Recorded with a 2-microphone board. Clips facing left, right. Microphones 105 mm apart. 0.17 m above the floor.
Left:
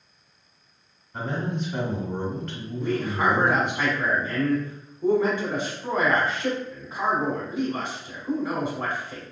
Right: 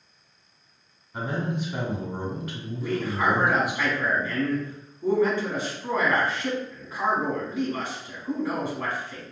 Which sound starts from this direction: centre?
A man speaking, at 1.1 s.